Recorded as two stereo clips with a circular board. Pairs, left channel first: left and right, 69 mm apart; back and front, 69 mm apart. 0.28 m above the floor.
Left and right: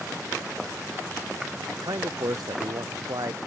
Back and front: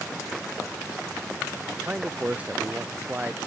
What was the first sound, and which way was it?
A man speaking, 70° right.